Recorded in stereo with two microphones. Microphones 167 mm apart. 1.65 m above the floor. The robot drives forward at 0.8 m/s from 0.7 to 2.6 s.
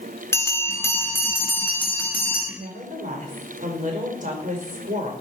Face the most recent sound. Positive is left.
turn(degrees=-50)  # may be behind; listen again after turning